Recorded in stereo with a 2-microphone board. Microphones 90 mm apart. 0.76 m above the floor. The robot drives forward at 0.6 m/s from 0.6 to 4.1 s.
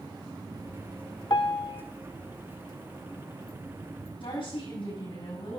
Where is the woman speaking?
80° left, 5.5 m.